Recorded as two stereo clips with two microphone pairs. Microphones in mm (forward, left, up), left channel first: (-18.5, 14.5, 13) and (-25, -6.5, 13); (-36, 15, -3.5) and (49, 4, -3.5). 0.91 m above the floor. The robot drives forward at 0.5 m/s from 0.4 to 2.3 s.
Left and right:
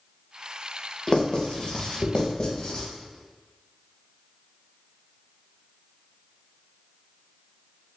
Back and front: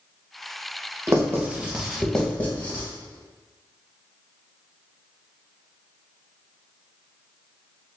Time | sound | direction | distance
1.1 | writing | 40° left | 0.8 m